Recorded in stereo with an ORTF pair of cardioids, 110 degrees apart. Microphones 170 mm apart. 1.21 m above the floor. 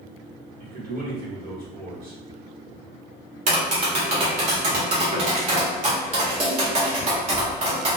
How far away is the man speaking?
About 1.4 m.